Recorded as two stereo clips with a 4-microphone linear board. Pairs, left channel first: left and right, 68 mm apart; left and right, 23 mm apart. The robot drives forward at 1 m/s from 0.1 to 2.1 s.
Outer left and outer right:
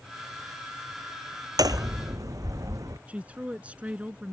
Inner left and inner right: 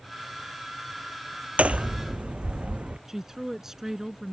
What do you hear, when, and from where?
1.6 s hammering: 65° right (ahead or behind); by 3.0 s 60° right (ahead or behind)
3.1 s a woman speaking: 20° right (ahead or behind)